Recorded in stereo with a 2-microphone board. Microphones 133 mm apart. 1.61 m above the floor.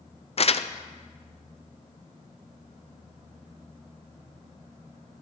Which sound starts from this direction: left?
Crumpling, at 0.4 s.